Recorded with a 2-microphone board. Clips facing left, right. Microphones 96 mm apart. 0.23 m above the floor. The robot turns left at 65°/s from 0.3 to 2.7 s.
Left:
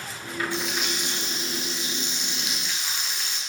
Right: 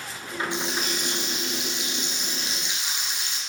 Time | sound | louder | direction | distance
0.5 | frying | even | 20° right | 1.6 m